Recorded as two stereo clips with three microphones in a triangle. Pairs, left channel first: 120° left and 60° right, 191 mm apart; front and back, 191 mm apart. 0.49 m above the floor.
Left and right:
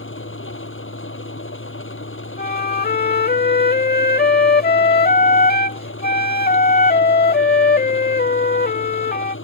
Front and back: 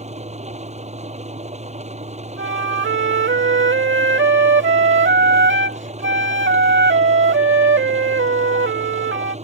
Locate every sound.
0.0 s an engine running: 125° left
2.4 s a flute: 160° left